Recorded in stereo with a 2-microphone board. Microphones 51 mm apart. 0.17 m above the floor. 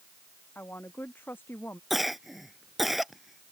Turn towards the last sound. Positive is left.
turn(degrees=-5)  # may be behind; listen again after turning